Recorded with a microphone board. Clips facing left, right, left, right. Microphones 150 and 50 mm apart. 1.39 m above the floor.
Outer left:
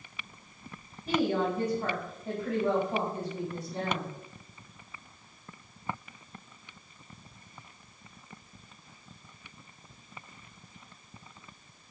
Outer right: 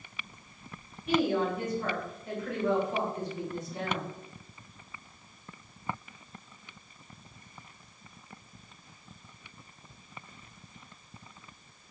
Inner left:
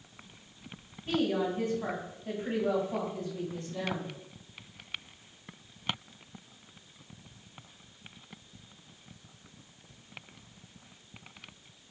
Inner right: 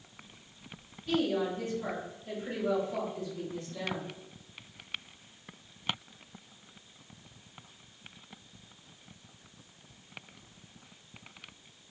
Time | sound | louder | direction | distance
1.1 | a woman speaking | outer right 1 dB, even | 35° left (ahead or behind) | 1.5 m